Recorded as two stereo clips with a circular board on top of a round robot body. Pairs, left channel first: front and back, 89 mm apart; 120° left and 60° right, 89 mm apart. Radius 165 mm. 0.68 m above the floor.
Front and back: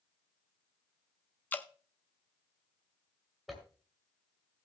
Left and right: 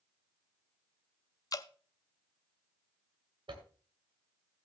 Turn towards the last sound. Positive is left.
turn(degrees=-90)